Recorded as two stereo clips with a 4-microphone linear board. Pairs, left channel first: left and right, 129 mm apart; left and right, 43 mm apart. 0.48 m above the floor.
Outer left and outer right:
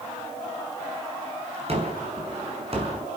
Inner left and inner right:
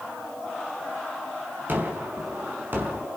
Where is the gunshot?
50° right (ahead or behind), 6 m.